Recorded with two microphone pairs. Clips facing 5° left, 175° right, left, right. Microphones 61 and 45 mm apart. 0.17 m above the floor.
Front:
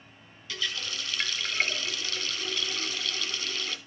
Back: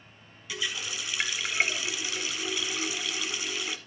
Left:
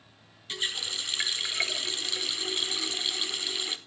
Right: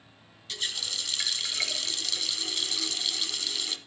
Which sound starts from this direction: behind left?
A running tap, at 0.5 s.